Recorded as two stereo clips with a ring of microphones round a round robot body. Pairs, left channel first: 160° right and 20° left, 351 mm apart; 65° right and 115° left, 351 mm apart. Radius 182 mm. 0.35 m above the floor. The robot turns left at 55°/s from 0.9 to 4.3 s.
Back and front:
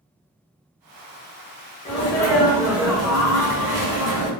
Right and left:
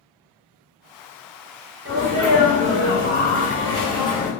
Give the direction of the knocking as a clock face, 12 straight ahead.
No knocking in this recording.